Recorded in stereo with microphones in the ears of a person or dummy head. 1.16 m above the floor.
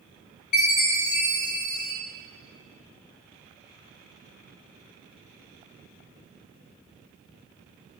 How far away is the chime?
About 1.9 m.